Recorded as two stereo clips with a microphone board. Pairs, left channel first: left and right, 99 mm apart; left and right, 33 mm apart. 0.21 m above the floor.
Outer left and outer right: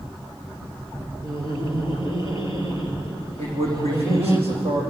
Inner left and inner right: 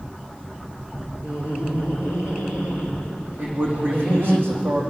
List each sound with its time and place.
1.2 s laughter: 40° right (ahead or behind), 4.5 m
3.4 s a man speaking: 80° right, 10 m